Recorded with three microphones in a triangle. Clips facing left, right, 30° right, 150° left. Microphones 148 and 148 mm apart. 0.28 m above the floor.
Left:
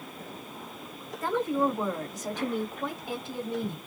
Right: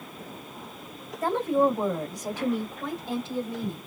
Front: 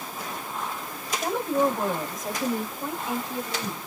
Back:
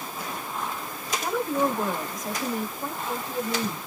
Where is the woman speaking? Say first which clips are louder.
Right 4 dB, front 1 dB; 75° right, 1.8 m; by 3.8 s 40° left, 1.9 m.